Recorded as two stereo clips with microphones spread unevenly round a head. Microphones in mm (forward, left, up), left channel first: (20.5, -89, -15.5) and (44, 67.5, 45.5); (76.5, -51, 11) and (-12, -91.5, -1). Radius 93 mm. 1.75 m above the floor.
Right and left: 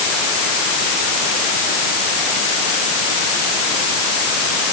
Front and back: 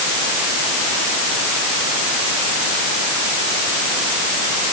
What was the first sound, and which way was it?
Only background noise.